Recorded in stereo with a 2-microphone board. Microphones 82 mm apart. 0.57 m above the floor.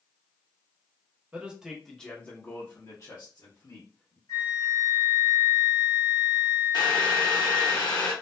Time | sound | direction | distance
1.3 | a man speaking | 20° right (ahead or behind) | 0.8 m
4.3 | a flute | 65° left (ahead or behind) | 1.7 m
6.7 | boiling | 60° left (ahead or behind) | 0.9 m